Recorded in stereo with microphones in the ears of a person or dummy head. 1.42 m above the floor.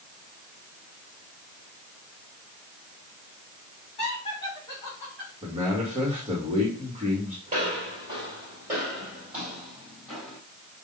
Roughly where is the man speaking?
Right.